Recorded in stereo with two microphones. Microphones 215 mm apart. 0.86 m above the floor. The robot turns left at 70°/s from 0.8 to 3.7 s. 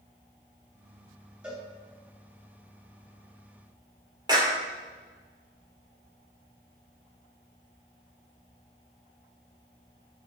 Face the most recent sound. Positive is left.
turn(degrees=-20)  # may be behind; listen again after turning